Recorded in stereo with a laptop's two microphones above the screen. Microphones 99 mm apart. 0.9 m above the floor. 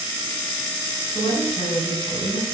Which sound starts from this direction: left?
A woman speaking, at 1.1 s.